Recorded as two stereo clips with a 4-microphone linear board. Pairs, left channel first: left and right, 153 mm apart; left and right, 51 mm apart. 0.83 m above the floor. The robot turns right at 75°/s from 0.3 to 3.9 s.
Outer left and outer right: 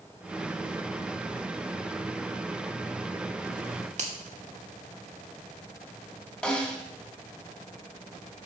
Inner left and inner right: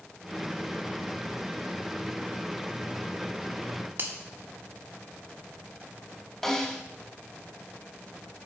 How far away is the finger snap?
About 1.2 m.